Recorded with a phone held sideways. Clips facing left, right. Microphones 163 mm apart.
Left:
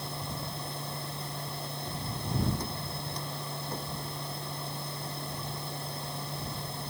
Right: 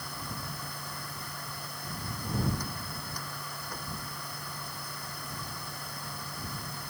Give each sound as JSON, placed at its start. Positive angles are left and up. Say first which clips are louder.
{"t": 0.0, "sound": "a machine running", "louder": "left 3 dB", "side_deg": 25}